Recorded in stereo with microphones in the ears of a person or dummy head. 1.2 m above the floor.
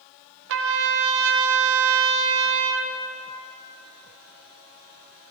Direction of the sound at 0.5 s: 70° right (ahead or behind).